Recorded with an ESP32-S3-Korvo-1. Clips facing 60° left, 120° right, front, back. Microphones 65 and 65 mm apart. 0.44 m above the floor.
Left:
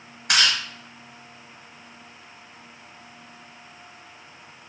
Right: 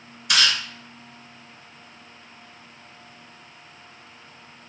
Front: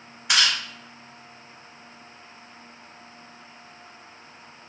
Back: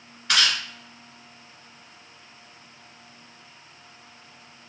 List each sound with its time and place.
0.3 s chewing: 75° left, 1.3 m